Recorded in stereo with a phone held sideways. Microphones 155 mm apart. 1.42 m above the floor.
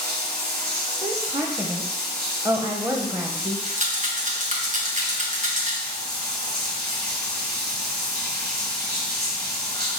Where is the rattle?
55° right (ahead or behind), 1.5 m.